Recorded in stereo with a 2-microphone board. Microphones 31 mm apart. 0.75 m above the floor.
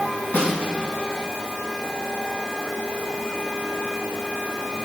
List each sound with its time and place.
0.3 s a snare drum: 70° left (ahead or behind), 3.5 m